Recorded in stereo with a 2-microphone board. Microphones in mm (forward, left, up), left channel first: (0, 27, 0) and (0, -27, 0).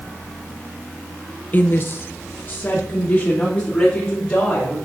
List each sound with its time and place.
1.5 s a woman speaking: 35° left (ahead or behind), 0.7 m; by 4.8 s 25° left (ahead or behind), 3.5 m